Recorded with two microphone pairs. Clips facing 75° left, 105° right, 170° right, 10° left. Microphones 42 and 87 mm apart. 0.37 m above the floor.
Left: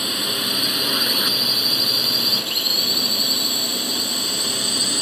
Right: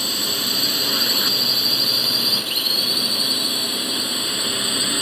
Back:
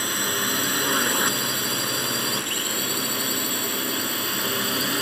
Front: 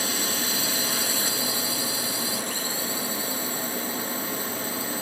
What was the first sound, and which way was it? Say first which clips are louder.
A drone: left 1 dB, back 3 dB; 150° left.